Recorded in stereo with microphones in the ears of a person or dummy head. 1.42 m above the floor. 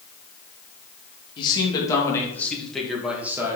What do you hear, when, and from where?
1.4 s a man speaking: 25° left (ahead or behind), 2.5 m; by 3.6 s 20° right (ahead or behind), 1.9 m